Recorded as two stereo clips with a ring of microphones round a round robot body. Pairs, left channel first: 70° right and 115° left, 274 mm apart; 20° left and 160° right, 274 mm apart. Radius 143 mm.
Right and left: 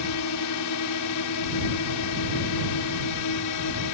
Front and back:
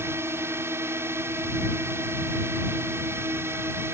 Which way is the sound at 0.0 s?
75° right.